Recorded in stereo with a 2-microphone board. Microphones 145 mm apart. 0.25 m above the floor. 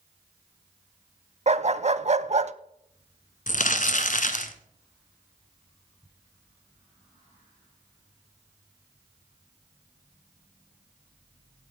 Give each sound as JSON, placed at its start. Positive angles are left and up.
{"t": 1.5, "sound": "a dog barking", "side_deg": -50, "distance_m": 0.6}
{"t": 3.5, "sound": "crumpling", "side_deg": 60, "distance_m": 1.2}